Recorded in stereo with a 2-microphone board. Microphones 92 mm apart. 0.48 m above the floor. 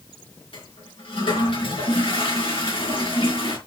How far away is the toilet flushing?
About 4 m.